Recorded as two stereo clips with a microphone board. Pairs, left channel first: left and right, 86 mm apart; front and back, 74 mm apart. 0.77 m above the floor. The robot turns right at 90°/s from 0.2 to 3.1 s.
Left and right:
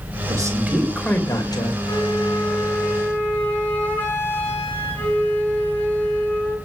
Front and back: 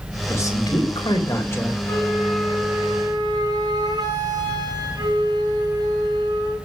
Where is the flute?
45° left, 7.5 m; by 6.6 s 160° left, 7.5 m.